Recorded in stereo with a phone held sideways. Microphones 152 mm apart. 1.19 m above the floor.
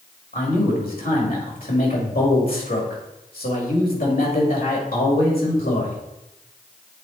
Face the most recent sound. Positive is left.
turn(degrees=70)  # may be behind; listen again after turning